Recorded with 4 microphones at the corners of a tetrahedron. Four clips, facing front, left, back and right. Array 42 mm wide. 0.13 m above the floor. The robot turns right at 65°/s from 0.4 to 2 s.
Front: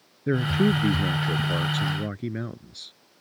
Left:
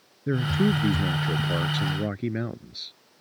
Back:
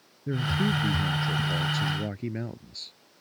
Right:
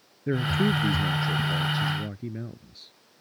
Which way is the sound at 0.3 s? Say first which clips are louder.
Left 1 dB, front 5 dB; 15° right.